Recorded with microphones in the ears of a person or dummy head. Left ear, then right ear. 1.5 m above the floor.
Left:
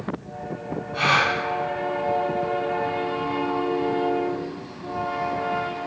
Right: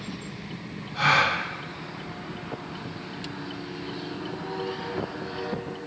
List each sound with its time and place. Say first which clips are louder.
0.9 s a gasp: left 1 dB; 75° left (ahead or behind), 1.2 m